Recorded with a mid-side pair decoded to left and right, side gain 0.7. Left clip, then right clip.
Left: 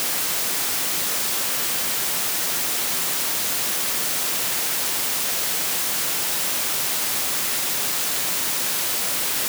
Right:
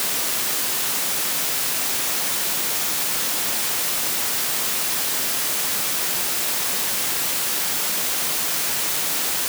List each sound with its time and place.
Only background noise.